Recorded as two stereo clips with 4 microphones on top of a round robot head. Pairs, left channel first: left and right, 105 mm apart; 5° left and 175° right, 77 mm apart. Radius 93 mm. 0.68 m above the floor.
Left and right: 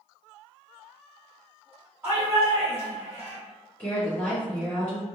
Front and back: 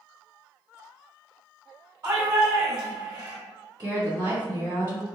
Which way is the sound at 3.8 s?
160° left.